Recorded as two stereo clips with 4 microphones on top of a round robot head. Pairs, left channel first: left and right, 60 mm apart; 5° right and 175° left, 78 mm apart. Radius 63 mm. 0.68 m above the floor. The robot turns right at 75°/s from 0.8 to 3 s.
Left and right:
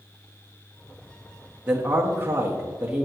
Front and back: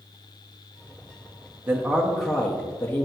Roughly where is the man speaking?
Behind right.